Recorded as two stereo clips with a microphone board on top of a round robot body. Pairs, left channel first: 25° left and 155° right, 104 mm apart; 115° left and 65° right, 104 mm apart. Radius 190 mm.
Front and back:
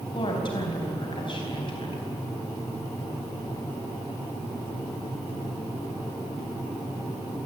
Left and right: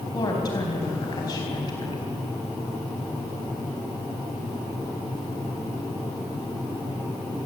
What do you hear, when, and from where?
0.1 s a woman speaking: 65° left, 4 m